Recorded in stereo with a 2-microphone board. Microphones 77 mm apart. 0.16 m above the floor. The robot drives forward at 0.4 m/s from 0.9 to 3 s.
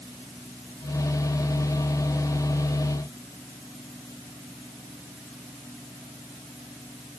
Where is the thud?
No thud in this recording.